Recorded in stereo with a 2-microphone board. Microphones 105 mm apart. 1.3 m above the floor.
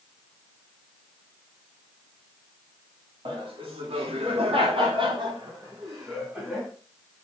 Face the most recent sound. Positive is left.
turn(degrees=-20)  # may be behind; listen again after turning